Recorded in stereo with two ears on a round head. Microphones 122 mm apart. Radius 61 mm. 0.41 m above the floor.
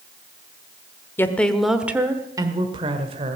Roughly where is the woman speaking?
Centre.